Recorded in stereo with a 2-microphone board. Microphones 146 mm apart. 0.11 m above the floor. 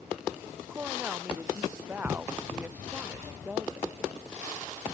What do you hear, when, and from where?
0.7 s a woman speaking: 15° right (ahead or behind)